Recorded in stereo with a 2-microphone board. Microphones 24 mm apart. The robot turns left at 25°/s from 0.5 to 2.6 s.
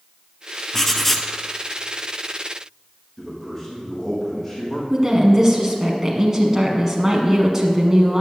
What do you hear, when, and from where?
0.7 s writing: 20° left (ahead or behind), 0.7 m; by 1.3 s 5° left (ahead or behind), 0.7 m
3.2 s a man speaking: 20° left (ahead or behind), 4.5 m
4.9 s a woman speaking: 20° right (ahead or behind), 1.3 m